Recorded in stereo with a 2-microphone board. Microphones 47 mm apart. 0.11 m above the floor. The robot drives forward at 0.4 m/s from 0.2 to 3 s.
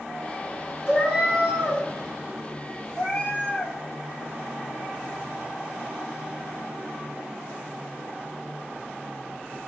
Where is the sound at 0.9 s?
20° right (ahead or behind), 1.0 m; by 1.8 s 15° right (ahead or behind), 1.3 m.